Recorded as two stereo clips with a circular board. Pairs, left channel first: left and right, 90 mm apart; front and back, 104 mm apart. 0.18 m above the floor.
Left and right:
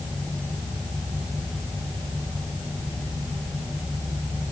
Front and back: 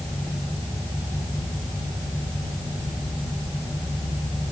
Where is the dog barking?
I don't hear a dog barking.